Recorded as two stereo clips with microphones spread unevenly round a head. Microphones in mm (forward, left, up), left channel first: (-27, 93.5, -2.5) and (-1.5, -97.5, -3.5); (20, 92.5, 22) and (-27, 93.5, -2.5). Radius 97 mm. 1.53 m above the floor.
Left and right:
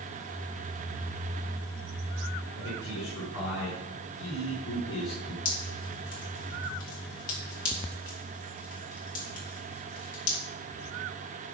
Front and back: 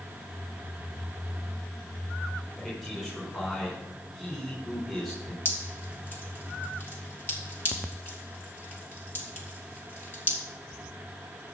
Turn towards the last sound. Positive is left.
turn(degrees=45)